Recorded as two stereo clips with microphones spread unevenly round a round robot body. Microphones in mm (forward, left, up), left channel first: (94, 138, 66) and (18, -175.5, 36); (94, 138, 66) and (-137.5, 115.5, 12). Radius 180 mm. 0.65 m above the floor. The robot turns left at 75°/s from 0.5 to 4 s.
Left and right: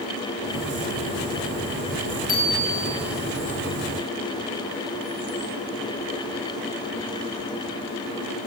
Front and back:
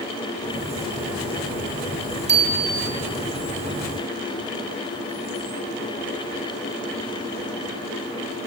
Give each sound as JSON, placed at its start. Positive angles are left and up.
{"t": 2.3, "sound": "a bicycle bell", "azimuth_deg": 145, "distance_m": 6.5}